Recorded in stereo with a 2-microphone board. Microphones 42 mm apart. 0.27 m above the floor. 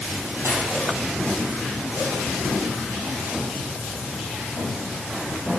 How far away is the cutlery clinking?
About 4.5 m.